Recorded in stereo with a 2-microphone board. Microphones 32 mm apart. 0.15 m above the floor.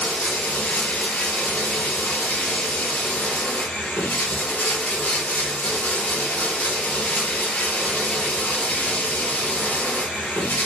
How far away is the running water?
About 1.6 m.